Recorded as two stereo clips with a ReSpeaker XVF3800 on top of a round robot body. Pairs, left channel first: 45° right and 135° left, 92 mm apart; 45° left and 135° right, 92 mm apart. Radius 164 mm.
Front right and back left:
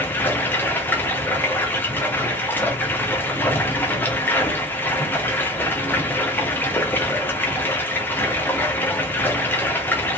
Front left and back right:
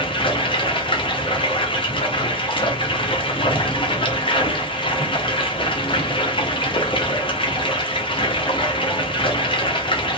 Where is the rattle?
No rattle in this recording.